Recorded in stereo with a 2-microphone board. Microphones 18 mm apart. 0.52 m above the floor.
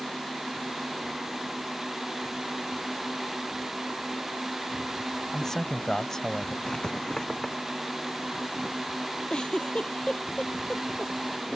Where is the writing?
40° left (ahead or behind).